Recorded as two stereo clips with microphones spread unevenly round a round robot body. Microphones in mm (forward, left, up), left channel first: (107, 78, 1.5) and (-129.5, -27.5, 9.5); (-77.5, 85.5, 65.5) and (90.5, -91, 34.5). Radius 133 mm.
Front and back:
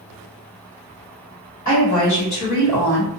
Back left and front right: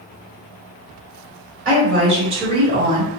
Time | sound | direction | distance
1.6 | a woman speaking | 15° right | 1.9 m